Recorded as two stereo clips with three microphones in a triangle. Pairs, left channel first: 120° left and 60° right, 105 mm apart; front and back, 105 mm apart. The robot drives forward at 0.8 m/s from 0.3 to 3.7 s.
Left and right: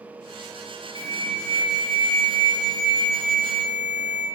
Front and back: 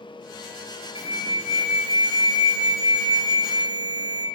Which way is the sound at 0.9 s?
25° right.